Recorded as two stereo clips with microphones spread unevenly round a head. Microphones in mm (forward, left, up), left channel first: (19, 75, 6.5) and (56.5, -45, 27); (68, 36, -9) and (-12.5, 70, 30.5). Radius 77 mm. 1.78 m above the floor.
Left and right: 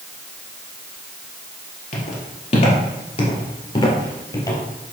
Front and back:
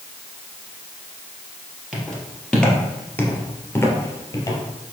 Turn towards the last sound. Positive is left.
turn(degrees=40)